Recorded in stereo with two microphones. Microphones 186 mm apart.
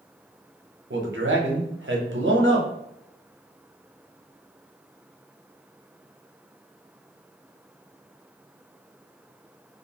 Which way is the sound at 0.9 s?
80° right.